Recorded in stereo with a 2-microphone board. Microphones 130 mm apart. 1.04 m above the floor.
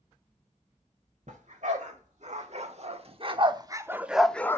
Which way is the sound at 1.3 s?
70° right (ahead or behind).